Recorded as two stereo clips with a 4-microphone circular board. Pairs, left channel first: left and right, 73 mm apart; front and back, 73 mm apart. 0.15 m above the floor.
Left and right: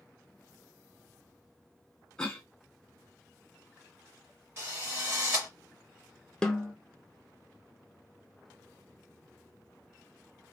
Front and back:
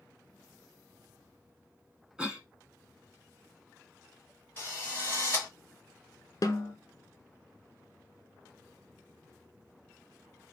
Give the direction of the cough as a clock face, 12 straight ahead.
7 o'clock.